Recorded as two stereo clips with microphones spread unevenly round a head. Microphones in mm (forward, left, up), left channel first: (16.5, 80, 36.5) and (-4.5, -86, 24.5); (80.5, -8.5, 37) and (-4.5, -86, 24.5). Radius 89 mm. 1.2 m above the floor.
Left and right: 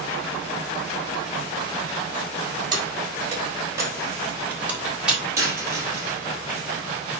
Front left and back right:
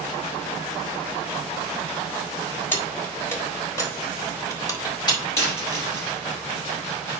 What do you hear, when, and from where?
2.7 s keys jangling: 30° right, 3.5 m; by 5.2 s 10° right, 3 m
5.4 s a dropped coin: 25° right, 5 m